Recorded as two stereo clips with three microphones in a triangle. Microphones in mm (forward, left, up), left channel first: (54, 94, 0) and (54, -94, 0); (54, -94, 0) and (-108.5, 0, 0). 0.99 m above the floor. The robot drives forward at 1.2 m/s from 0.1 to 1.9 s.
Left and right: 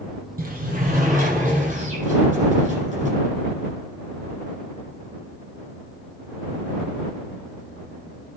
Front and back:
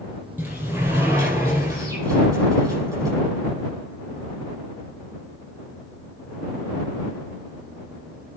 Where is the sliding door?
130° right, 8.5 m; by 3.1 s 135° right, 9.5 m.